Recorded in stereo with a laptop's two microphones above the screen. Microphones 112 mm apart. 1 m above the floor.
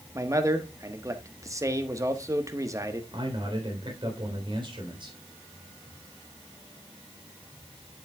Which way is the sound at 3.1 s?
50° right (ahead or behind).